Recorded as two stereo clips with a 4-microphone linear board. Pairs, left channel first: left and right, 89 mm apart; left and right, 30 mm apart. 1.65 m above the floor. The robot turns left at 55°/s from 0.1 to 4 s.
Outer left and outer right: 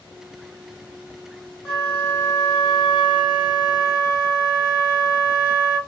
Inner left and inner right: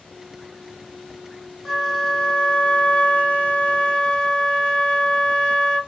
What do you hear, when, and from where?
1.6 s a flute: 175° left, 1.1 m; by 5.8 s 45° left, 1.1 m